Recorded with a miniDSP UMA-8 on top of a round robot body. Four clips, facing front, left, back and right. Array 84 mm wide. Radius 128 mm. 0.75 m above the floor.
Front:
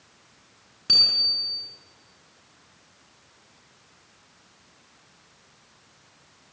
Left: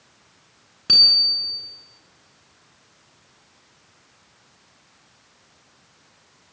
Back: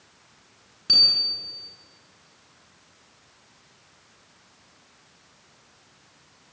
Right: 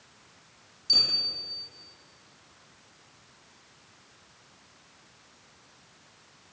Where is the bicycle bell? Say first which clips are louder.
Left 7 dB, even; 85° left, 8 m.